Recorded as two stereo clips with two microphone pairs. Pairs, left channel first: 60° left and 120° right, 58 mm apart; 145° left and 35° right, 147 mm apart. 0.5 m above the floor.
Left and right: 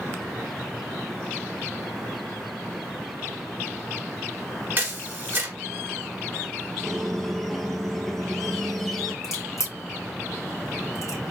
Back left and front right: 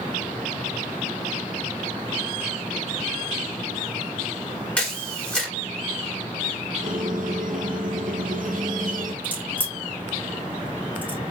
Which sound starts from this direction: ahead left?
A crack, at 9.2 s.